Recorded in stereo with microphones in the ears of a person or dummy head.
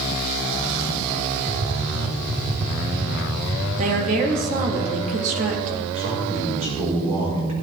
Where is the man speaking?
45° right (ahead or behind), 5 m.